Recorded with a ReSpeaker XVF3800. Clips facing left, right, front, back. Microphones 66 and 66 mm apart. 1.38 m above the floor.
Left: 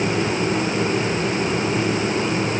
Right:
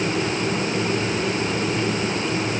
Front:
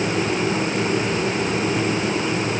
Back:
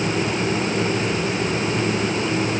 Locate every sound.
Only background noise.